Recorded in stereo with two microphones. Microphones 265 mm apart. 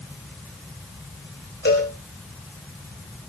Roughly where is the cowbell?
Left.